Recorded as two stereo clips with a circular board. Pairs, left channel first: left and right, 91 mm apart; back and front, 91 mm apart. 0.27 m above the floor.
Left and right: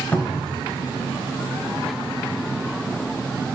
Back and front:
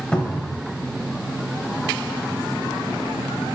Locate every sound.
0.1 s a cupboard door: 120° left, 0.6 m